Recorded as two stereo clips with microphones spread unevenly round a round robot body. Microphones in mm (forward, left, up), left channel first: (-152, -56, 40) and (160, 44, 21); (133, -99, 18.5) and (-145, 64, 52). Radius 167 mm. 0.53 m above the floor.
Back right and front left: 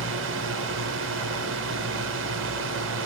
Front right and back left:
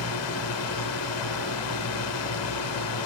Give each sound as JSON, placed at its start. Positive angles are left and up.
{"t": 0.0, "sound": "a drone", "azimuth_deg": -20}